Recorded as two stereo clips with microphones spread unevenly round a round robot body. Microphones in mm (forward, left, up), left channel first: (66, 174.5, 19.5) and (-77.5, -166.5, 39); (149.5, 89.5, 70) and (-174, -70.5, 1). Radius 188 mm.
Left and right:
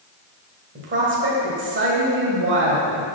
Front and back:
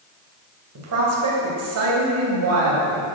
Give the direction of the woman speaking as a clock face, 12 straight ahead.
6 o'clock.